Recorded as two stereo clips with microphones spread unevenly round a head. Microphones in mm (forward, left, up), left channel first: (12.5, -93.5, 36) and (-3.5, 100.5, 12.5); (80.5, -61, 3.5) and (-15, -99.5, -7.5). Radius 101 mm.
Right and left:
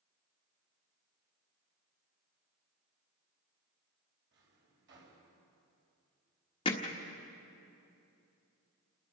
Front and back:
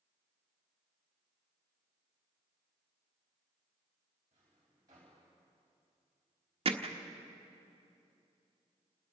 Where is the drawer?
130° left, 4.5 m.